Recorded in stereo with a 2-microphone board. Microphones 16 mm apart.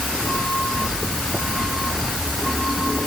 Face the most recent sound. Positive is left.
No sound to turn to.